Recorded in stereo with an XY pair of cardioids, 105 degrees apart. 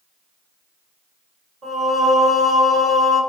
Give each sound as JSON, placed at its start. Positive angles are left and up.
{"t": 1.6, "sound": "singing", "azimuth_deg": -35, "distance_m": 2.0}